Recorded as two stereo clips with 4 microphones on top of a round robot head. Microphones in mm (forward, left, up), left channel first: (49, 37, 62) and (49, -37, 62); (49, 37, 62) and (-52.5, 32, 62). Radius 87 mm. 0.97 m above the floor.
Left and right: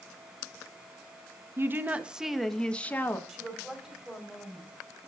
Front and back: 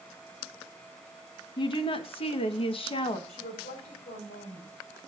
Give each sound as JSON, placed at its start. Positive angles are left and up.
{"t": 1.6, "sound": "a woman speaking", "azimuth_deg": -35, "distance_m": 1.2}
{"t": 3.3, "sound": "a woman speaking", "azimuth_deg": -5, "distance_m": 4.5}